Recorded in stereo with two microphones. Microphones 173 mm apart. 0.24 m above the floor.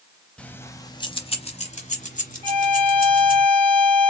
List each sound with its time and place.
0.4 s keys jangling: 5° left (ahead or behind), 0.7 m; by 3.4 s 55° left (ahead or behind), 2 m
2.4 s a violin: 30° right (ahead or behind), 1.8 m